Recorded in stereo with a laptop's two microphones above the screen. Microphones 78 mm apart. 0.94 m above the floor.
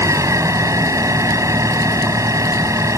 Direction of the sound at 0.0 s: 45° right (ahead or behind).